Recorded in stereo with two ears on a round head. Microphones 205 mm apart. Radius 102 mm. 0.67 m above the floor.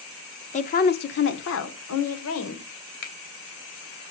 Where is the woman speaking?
30° left (ahead or behind), 1.2 m; by 2.7 s 75° left (ahead or behind), 2.5 m.